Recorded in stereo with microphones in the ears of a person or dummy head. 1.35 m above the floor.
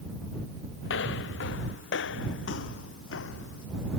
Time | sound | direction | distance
0.8 | footsteps | 70° left (ahead or behind) | ?